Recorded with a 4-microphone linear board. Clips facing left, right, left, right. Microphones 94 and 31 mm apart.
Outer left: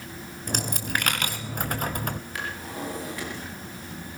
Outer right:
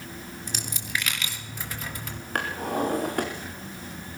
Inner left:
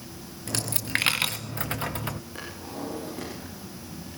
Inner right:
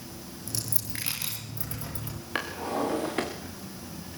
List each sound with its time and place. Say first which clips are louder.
0.5 s a dropped coin: outer left 6 dB, inner left 10 dB; 50° left (ahead or behind), 1.6 m
2.4 s a drawer: outer right 6 dB, inner right 7 dB; 55° right (ahead or behind), 4.5 m